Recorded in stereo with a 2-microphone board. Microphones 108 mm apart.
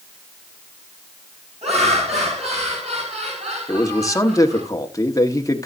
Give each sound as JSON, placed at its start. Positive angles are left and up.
{"t": 1.6, "sound": "laughter", "side_deg": -80, "distance_m": 9.0}
{"t": 3.7, "sound": "a man speaking", "side_deg": 35, "distance_m": 1.5}